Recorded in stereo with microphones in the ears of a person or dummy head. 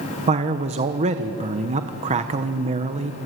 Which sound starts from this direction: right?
A man speaking, at 0.3 s.